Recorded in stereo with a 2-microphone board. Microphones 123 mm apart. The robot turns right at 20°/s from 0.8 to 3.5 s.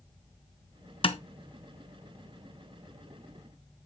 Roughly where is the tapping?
Left.